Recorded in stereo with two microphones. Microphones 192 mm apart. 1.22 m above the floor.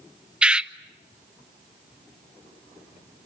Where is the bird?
5° right (ahead or behind), 0.5 m.